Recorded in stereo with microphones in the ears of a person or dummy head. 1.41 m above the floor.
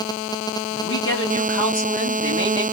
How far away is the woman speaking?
About 1.6 m.